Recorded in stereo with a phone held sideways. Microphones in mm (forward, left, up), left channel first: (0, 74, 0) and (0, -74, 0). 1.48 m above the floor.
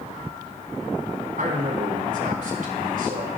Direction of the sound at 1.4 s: 70° right (ahead or behind).